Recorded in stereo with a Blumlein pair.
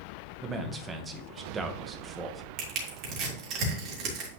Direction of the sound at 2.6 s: 35° right.